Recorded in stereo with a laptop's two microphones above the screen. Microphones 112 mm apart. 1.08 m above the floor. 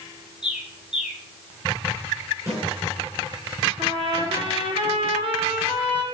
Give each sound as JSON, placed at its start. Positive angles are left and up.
{"t": 0.4, "sound": "a bird", "side_deg": -5, "distance_m": 1.9}
{"t": 2.5, "sound": "a snare drum", "side_deg": -25, "distance_m": 4.0}
{"t": 3.8, "sound": "a trumpet", "side_deg": -50, "distance_m": 2.5}